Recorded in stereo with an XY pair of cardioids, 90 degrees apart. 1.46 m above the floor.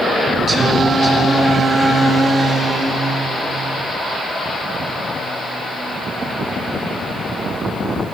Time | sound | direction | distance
0.5 | singing | 45° right | 3 m